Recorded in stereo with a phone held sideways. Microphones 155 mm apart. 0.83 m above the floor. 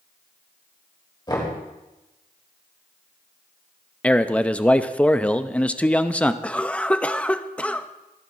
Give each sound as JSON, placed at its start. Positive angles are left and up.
{"t": 1.3, "sound": "knocking", "side_deg": 25, "distance_m": 3.5}
{"t": 4.0, "sound": "a man speaking", "side_deg": 5, "distance_m": 0.6}
{"t": 6.4, "sound": "a cough", "side_deg": 5, "distance_m": 0.6}